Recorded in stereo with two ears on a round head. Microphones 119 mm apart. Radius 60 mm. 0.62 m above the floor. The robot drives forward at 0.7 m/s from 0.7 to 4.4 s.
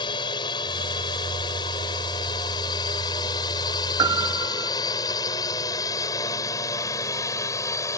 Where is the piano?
30° right (ahead or behind).